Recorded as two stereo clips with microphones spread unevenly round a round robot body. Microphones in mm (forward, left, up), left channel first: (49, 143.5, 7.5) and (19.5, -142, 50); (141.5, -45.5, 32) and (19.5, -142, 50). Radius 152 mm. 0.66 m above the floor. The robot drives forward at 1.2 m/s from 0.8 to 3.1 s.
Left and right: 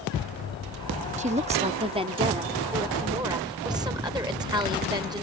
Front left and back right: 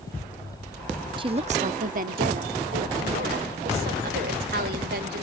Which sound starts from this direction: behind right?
A woman speaking, at 1.2 s.